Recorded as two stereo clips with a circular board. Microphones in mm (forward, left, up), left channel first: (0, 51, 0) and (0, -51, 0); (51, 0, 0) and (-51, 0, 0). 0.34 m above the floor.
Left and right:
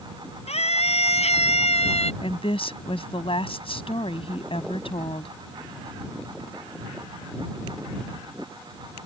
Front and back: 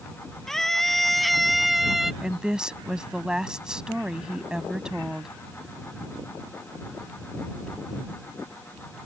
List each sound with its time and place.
0.5 s a scream: 85° left; by 2.1 s 95° left
2.2 s a woman speaking: 100° left